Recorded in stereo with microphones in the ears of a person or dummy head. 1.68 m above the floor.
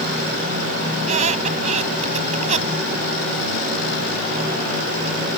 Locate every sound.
1.0 s a squeak: 45° right (ahead or behind)